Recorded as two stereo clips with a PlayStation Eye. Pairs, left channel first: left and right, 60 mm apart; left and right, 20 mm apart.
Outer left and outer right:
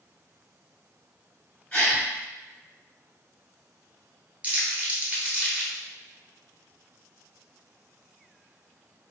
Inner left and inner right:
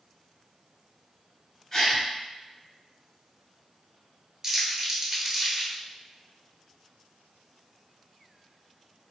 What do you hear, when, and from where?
1.7 s a gasp: 15° left (ahead or behind), 1.5 m
4.4 s crumpling: 25° right (ahead or behind), 0.9 m